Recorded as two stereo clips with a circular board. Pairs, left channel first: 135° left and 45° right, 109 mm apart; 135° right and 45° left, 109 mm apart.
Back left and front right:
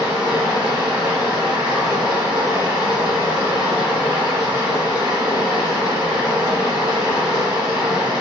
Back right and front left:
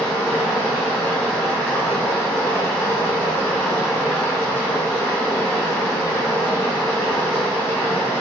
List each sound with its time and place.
0.0 s running water: 75° right, 1.3 m